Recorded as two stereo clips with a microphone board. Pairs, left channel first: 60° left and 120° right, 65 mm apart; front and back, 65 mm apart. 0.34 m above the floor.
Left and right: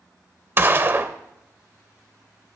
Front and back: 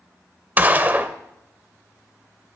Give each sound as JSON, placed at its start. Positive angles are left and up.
{"t": 0.6, "sound": "a gunshot", "azimuth_deg": -140, "distance_m": 0.6}